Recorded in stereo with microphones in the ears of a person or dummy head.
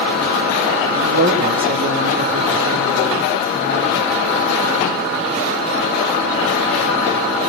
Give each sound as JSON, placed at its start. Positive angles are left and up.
{"t": 0.9, "sound": "a man speaking", "side_deg": -45, "distance_m": 1.3}